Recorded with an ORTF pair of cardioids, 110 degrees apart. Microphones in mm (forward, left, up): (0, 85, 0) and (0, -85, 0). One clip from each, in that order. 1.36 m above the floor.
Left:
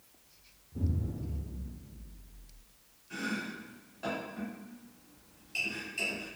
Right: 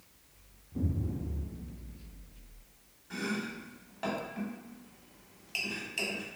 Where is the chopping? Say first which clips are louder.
Even; 45° right, 1.1 m.